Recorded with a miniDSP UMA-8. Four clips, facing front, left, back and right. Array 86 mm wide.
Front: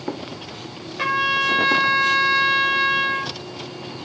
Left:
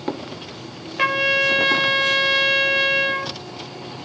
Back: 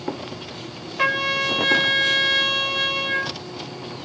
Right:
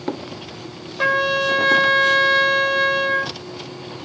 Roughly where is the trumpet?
Left.